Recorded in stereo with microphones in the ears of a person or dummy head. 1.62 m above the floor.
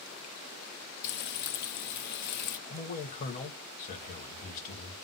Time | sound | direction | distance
1.0 | frying | 60° left (ahead or behind) | 0.7 m
2.7 | a man speaking | 45° left (ahead or behind) | 1.0 m